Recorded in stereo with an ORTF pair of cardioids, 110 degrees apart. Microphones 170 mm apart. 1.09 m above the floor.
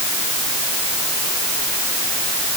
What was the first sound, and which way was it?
Only background noise.